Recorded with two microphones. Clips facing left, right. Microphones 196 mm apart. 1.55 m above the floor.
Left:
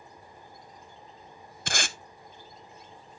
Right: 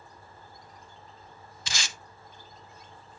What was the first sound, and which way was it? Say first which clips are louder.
Tape being pulled: left 7 dB; 55° left (ahead or behind).